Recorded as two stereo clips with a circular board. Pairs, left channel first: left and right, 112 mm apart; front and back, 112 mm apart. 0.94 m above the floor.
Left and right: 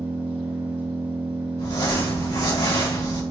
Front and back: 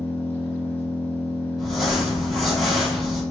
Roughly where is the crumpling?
Left.